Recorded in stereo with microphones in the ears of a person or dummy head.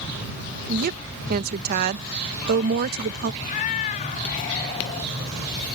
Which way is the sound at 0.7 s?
45° right (ahead or behind).